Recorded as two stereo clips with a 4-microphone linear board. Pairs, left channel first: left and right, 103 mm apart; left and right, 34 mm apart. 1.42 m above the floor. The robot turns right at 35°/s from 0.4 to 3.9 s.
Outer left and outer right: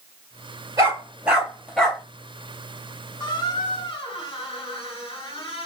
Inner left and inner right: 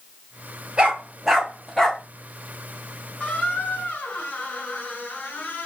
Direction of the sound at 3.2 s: 40° left (ahead or behind).